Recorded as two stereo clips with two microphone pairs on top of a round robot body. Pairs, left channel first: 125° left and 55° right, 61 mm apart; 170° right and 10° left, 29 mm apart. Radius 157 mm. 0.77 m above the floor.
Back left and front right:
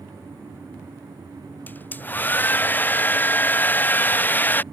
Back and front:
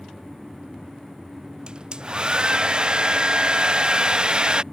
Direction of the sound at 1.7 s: 65° left.